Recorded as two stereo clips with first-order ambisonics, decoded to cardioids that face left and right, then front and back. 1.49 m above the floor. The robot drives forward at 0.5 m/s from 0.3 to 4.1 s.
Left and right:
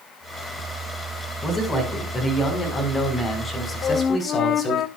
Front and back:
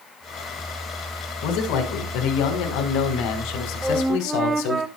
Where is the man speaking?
15° left, 5.5 m; by 4.8 s 20° left, 4 m.